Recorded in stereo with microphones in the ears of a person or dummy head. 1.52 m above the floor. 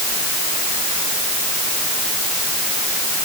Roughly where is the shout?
No shout in this recording.